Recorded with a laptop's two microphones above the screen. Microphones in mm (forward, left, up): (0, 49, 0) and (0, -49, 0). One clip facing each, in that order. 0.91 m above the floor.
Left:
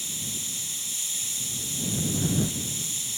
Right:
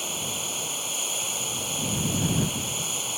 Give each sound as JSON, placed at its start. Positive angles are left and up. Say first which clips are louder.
{"t": 0.0, "sound": "running water", "louder": "right 7 dB", "side_deg": -55}